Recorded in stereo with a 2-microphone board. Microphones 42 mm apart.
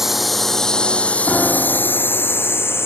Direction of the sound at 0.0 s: 5° right (ahead or behind).